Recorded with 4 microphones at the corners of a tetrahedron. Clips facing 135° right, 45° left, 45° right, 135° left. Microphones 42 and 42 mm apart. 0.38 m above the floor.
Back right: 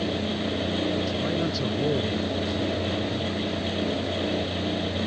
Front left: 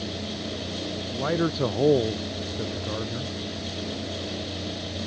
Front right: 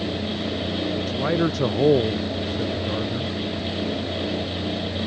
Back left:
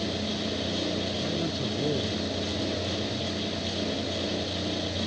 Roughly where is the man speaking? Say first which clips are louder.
Front left 1 dB, front right 8 dB; ahead.